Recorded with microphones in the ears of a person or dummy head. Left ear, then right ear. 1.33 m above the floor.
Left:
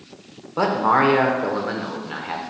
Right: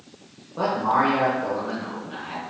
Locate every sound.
0.6 s a man speaking: 60° left (ahead or behind), 0.7 m